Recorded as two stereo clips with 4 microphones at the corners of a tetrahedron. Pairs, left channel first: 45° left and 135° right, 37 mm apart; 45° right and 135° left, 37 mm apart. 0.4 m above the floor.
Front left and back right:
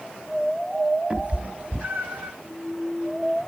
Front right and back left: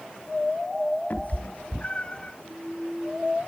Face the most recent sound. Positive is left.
turn(degrees=-105)